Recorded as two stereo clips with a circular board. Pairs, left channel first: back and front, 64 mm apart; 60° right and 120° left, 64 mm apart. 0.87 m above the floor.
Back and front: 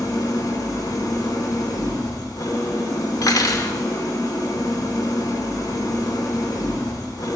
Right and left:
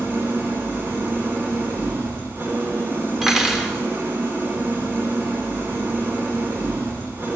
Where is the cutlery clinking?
155° right, 1.1 m.